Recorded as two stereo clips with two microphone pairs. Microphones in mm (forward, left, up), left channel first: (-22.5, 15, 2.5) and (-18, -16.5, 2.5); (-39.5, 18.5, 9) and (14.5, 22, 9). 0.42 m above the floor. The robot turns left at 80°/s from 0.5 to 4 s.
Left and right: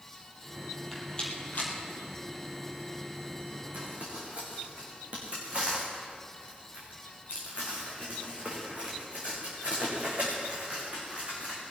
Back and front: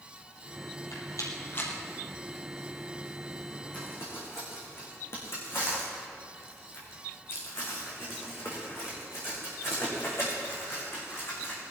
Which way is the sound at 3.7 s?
115° right.